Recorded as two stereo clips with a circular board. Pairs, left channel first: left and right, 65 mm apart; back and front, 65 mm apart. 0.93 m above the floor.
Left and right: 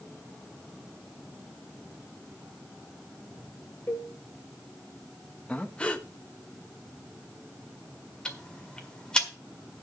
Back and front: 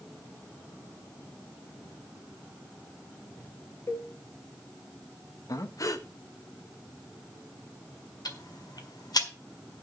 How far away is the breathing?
About 1.0 m.